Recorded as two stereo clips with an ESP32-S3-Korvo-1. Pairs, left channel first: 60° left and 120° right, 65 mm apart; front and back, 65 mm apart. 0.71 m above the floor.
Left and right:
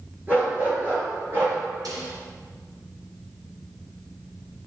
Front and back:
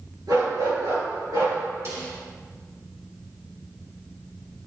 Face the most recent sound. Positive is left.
turn(degrees=-135)